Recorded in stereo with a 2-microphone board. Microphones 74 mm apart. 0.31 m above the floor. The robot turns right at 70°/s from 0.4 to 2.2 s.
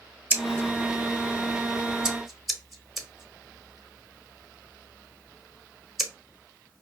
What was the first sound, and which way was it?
Scissors, 25° right (ahead or behind).